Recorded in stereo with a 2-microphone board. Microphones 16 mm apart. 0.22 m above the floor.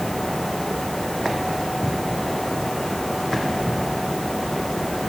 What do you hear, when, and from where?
Only background noise.